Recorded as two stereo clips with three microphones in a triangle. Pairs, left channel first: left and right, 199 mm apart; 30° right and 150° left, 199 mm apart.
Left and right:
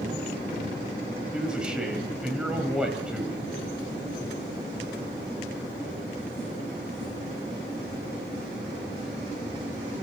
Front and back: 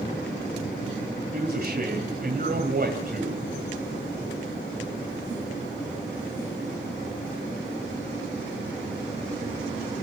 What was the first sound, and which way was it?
A man speaking, 175° right.